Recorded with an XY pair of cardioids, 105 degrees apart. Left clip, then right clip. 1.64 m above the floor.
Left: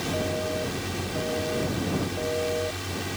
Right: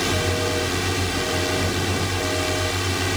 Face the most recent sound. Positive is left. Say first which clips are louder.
# right 6 dB
turn(degrees=-60)